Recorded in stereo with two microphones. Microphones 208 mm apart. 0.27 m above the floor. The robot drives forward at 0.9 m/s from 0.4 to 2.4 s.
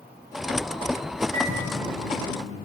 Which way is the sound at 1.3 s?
40° right (ahead or behind).